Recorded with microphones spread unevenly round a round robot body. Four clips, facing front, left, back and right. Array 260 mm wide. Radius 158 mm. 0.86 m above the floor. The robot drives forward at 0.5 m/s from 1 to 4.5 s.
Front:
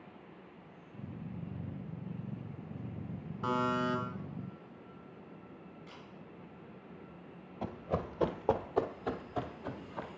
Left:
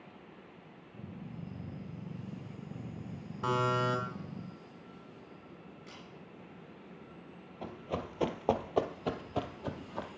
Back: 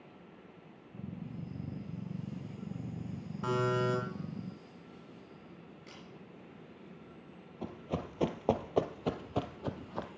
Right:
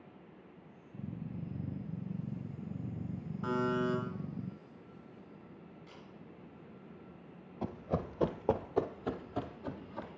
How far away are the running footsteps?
About 0.9 m.